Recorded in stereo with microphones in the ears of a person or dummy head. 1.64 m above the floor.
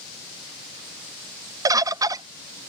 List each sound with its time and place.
1.6 s a bird: 20° right (ahead or behind)